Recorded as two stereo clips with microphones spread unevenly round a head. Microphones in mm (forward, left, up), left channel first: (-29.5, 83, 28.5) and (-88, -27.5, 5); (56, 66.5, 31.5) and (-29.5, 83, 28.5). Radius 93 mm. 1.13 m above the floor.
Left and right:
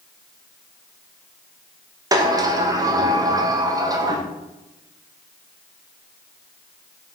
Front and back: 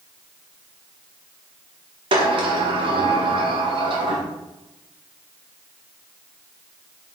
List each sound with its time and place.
2.1 s a sliding door: 175° right, 1.5 m